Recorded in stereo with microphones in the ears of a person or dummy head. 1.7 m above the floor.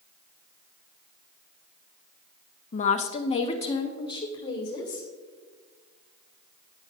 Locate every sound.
2.7 s a woman speaking: 40° left (ahead or behind), 0.6 m; by 5.1 s 20° left (ahead or behind), 2.5 m